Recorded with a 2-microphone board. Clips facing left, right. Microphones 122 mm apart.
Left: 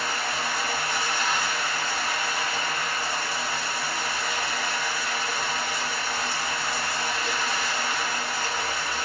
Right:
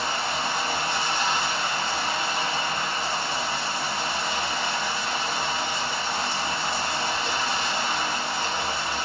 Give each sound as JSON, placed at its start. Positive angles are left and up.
{"t": 0.0, "sound": "running water", "side_deg": -25, "distance_m": 0.7}